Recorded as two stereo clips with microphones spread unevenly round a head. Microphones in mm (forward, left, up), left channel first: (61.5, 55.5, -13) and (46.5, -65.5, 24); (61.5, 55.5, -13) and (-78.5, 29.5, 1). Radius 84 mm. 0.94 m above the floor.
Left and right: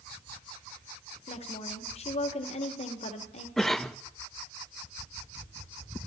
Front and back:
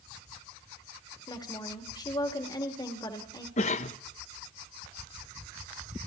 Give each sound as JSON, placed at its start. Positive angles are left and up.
{"t": 1.3, "sound": "a woman speaking", "azimuth_deg": 70, "distance_m": 1.9}
{"t": 3.6, "sound": "a cough", "azimuth_deg": 10, "distance_m": 0.6}